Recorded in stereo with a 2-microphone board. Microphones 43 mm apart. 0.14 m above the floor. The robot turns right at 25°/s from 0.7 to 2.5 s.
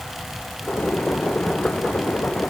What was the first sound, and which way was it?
Only background noise.